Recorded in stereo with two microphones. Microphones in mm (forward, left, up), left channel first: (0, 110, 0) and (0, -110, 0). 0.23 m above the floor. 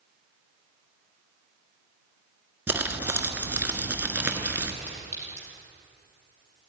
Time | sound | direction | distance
2.7 | crumpling | 10° right (ahead or behind) | 1.1 m
4.9 | a clink | 35° right (ahead or behind) | 4 m